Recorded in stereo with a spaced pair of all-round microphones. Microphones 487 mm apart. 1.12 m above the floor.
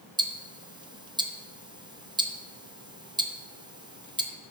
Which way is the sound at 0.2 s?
10° right (ahead or behind).